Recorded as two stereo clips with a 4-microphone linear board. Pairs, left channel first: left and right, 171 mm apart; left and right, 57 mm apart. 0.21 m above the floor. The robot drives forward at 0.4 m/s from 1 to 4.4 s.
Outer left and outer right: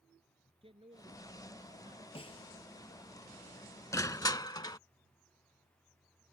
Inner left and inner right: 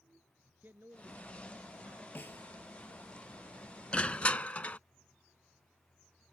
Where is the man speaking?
35° right (ahead or behind).